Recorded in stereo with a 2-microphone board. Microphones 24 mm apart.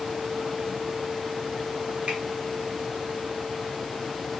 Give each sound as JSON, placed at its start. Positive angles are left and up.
{"t": 2.1, "sound": "a finger snap", "side_deg": -55, "distance_m": 1.2}